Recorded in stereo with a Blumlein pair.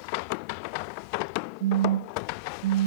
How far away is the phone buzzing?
About 0.6 m.